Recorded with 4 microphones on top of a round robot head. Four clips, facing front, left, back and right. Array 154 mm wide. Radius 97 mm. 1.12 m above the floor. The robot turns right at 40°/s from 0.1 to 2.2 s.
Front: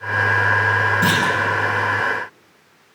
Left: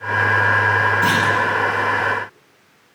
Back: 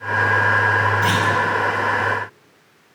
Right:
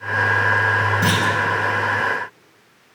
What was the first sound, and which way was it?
A clunk, 50° right.